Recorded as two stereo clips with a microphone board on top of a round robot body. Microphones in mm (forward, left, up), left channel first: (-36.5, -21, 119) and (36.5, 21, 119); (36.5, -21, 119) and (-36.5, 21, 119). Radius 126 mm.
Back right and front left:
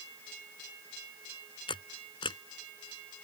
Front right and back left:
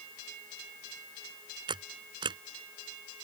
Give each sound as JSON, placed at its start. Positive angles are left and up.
{"t": 1.7, "sound": "a camera shutter", "azimuth_deg": 180}